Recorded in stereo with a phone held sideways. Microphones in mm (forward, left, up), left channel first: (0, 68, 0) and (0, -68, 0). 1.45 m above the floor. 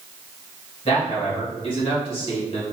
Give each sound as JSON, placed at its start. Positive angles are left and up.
{"t": 0.8, "sound": "a man speaking", "side_deg": 45, "distance_m": 2.0}